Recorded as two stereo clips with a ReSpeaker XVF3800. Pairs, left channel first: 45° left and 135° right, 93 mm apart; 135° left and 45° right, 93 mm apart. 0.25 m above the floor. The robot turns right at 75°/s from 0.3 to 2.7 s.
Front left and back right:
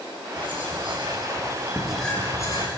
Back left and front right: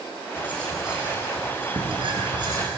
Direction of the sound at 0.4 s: 165° right.